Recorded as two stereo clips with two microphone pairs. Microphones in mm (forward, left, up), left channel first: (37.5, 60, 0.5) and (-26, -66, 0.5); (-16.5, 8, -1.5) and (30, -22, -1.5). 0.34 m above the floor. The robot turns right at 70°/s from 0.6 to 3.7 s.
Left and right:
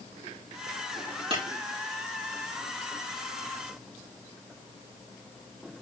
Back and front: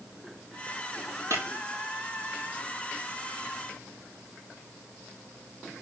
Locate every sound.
1.3 s breaking glass: 70° right, 4 m; by 1.4 s 60° right, 4 m